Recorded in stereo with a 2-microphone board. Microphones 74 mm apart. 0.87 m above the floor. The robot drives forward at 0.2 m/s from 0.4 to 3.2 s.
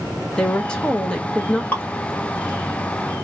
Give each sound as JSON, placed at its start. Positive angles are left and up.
{"t": 0.4, "sound": "a woman speaking", "side_deg": 15, "distance_m": 0.6}
{"t": 1.7, "sound": "dripping", "side_deg": 25, "distance_m": 0.8}